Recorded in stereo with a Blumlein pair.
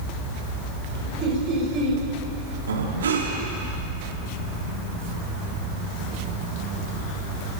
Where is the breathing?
65° right, 3 m.